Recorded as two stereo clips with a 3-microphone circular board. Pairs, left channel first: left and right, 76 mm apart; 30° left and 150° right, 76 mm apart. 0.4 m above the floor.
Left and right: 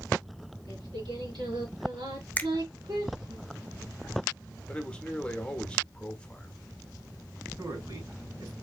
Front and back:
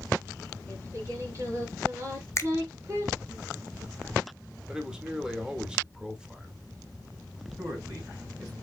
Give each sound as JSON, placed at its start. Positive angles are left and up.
{"t": 0.7, "sound": "singing", "azimuth_deg": -95, "distance_m": 3.0}
{"t": 2.4, "sound": "a finger snap", "azimuth_deg": 35, "distance_m": 0.7}
{"t": 4.7, "sound": "a man speaking", "azimuth_deg": 145, "distance_m": 1.3}
{"t": 7.6, "sound": "a man speaking", "azimuth_deg": -110, "distance_m": 3.0}